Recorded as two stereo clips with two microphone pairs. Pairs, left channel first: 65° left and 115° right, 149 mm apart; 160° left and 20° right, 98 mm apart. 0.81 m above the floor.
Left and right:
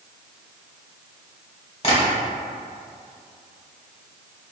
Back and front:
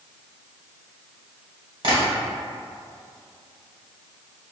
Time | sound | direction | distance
1.8 | tapping | 15° left | 1.3 m